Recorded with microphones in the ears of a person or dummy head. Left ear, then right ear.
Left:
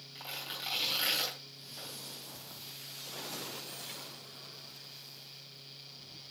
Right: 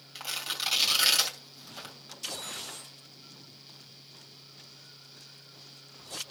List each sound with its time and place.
0.1 s tearing paper: 50° right (ahead or behind), 3 m